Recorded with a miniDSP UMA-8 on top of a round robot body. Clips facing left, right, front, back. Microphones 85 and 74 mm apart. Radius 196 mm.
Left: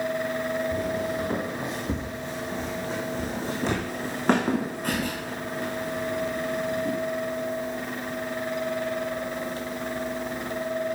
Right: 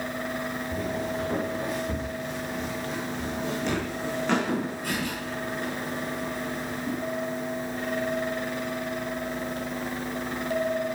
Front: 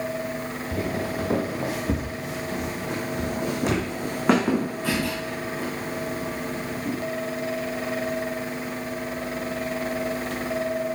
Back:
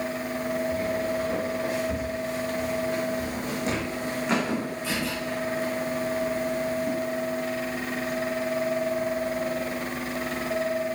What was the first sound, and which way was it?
Footsteps, straight ahead.